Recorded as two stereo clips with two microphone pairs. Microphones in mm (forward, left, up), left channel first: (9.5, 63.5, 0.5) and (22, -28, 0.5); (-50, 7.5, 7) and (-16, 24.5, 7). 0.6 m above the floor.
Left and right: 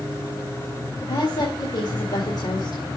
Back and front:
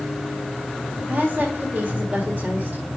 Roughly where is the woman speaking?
Ahead left.